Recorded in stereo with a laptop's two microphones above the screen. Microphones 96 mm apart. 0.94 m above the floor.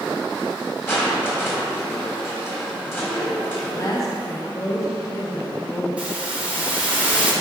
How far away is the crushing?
About 1.2 m.